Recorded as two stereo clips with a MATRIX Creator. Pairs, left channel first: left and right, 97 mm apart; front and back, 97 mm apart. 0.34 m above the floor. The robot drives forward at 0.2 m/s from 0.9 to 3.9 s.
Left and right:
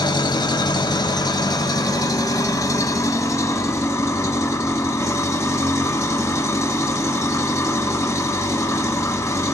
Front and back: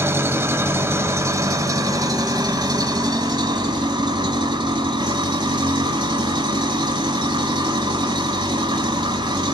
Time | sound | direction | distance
0.0 | an engine running | 120° left | 0.9 m